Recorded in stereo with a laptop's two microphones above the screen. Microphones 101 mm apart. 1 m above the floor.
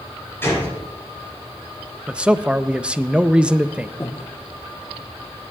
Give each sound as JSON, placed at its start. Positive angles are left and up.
{"t": 0.4, "sound": "a gunshot", "side_deg": 20, "distance_m": 5.5}
{"t": 2.1, "sound": "a man speaking", "side_deg": -10, "distance_m": 0.6}
{"t": 4.0, "sound": "breathing", "side_deg": 25, "distance_m": 0.8}